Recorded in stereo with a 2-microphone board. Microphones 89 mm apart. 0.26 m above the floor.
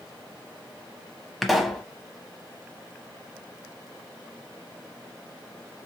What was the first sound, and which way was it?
A pop, centre (ahead or behind).